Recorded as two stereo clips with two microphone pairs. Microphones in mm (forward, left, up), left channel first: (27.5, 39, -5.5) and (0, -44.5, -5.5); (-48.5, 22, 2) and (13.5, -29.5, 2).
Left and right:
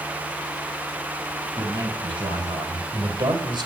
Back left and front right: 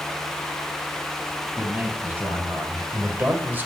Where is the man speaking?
110° right, 4.5 m; by 3.7 s 105° right, 2 m.